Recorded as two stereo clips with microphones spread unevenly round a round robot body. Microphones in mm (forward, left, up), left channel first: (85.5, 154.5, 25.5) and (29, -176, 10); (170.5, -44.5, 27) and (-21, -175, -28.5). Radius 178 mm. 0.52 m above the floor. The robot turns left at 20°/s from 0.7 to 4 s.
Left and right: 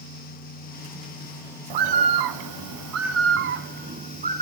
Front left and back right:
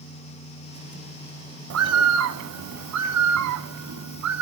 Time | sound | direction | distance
1.7 | a bird | 125° right | 0.7 m